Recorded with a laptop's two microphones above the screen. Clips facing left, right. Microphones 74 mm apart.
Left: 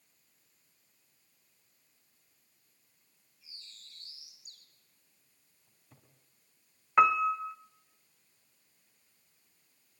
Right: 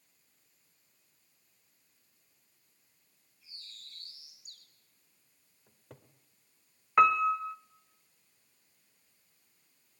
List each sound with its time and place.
3.4 s a bird: 45° right (ahead or behind), 5 m
5.7 s a cupboard door: 70° right (ahead or behind), 2 m
7.0 s a piano: 5° left (ahead or behind), 0.6 m